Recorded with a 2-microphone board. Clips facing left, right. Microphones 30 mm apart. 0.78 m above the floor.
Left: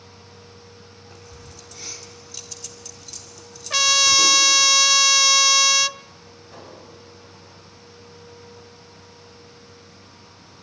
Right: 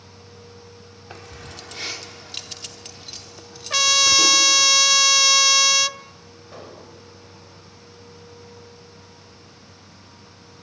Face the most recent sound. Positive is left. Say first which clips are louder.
# right 2 dB
turn(degrees=-25)  # may be behind; listen again after turning